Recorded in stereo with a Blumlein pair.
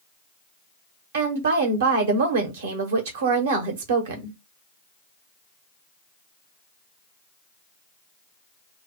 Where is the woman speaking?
60° right, 0.9 m.